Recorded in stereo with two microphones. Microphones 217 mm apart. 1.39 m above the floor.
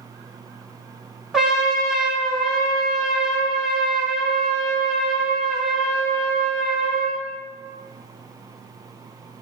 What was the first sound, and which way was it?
A trumpet, centre (ahead or behind).